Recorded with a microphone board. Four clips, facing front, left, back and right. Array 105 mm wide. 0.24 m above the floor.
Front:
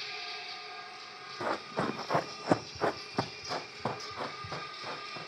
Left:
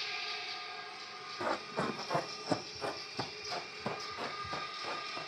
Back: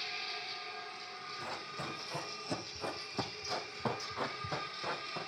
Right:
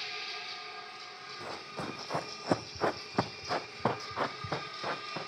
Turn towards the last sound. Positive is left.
turn(degrees=-100)